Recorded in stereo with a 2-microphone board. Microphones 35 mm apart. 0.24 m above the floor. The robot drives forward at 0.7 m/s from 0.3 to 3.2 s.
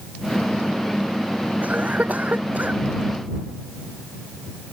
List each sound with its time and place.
1.6 s a cough: 40° right (ahead or behind); by 2.8 s 45° right (ahead or behind)